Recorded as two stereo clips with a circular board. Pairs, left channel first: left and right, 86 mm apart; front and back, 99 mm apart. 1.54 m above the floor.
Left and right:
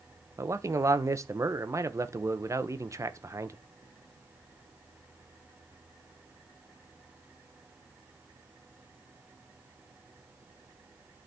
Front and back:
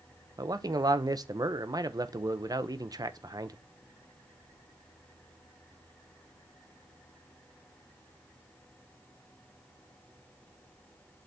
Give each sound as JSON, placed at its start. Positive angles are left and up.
{"t": 0.4, "sound": "a man speaking", "azimuth_deg": -135, "distance_m": 0.8}